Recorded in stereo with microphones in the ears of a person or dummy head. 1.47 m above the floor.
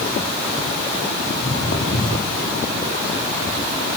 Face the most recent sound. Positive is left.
turn(degrees=80)